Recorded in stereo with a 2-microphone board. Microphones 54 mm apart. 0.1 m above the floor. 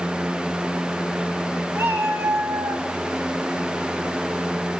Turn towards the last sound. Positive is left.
turn(degrees=-60)  # may be behind; listen again after turning